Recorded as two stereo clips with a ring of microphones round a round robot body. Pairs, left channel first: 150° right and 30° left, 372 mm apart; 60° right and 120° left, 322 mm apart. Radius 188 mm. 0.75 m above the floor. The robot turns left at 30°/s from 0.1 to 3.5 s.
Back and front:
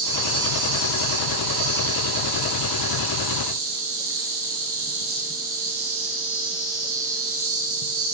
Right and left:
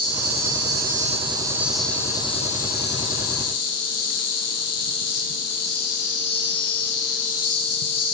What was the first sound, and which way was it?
An insect, 80° left.